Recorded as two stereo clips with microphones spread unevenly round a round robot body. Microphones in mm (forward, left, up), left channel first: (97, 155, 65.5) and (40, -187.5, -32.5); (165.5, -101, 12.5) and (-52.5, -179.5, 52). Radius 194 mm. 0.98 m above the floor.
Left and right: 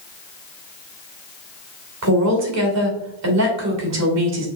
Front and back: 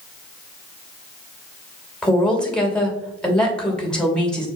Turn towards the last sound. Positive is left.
turn(degrees=-65)